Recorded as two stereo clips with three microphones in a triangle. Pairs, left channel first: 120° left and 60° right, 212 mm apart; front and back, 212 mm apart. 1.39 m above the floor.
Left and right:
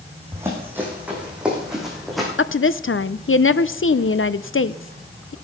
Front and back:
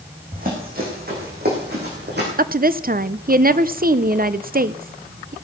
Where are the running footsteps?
135° right, 4.5 m; by 2.3 s 150° right, 5 m.